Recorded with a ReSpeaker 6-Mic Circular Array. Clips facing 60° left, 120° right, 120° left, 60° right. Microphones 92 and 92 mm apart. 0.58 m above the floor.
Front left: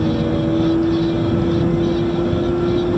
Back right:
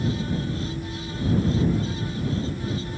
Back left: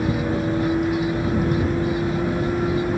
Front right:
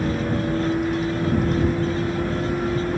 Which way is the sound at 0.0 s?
35° left.